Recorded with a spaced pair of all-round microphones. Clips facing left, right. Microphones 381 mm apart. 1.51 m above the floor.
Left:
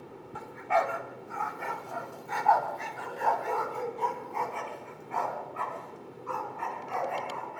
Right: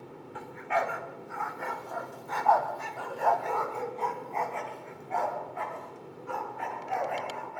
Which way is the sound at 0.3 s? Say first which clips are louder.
Left 2 dB; 55° left (ahead or behind).